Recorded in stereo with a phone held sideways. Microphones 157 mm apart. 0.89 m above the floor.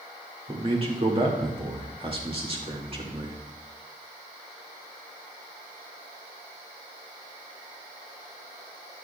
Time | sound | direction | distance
0.5 | a man speaking | 35° right (ahead or behind) | 2 m